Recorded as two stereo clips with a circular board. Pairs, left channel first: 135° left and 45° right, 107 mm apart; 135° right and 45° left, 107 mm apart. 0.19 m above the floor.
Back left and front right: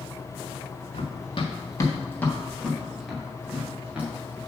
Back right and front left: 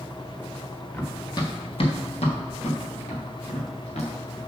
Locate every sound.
0.9 s running footsteps: 155° left, 1.7 m; by 4.4 s 120° right, 4.5 m